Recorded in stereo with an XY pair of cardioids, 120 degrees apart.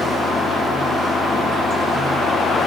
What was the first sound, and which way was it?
Running water, 45° left.